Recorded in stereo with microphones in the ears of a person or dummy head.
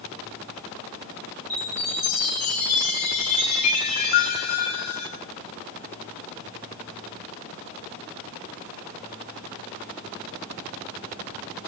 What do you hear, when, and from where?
1.5 s a chime: 55° left (ahead or behind), 4.5 m